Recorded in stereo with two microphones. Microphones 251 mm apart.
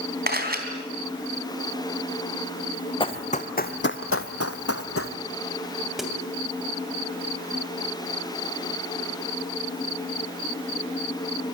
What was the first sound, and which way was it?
A camera shutter, 40° right (ahead or behind).